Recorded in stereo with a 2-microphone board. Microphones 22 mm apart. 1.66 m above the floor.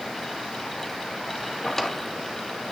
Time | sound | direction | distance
1.6 | a drawer | 20° left (ahead or behind) | 1.4 m